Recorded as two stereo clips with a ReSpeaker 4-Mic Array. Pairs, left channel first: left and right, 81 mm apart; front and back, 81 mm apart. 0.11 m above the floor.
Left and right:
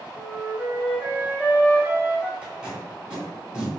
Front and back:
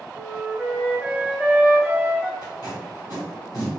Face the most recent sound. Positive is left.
turn(degrees=-15)